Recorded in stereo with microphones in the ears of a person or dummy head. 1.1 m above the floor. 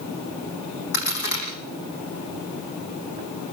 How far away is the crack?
About 8.5 m.